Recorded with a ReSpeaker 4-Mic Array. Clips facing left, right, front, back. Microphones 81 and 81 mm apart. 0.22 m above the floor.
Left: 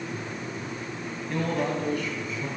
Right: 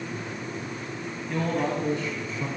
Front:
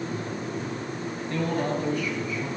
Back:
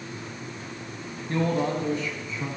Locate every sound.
1.3 s a man speaking: 175° right, 1.9 m; by 2.5 s 125° right, 2.5 m